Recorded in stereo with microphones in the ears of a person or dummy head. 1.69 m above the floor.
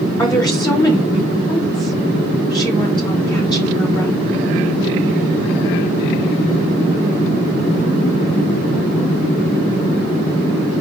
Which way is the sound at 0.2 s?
20° left (ahead or behind).